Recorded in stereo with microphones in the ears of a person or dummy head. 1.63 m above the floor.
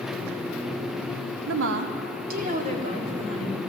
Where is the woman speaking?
80° right, 0.8 m; by 3.6 s 30° right (ahead or behind), 2.0 m.